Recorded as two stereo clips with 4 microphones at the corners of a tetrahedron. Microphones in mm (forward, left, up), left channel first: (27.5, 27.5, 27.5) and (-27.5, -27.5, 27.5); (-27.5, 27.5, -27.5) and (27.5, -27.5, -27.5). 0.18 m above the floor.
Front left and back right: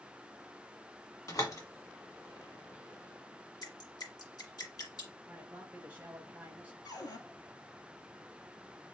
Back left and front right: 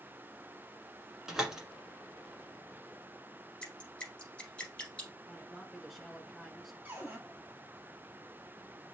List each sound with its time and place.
1.3 s a door slam: 35° left, 1.6 m
3.6 s dripping: 60° left, 1.9 m
5.3 s a man speaking: 130° right, 1.0 m
6.8 s a cupboard door: 15° left, 1.5 m